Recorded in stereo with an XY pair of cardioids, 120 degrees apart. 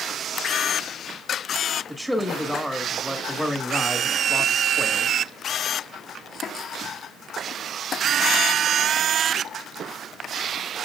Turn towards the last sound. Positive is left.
turn(degrees=0)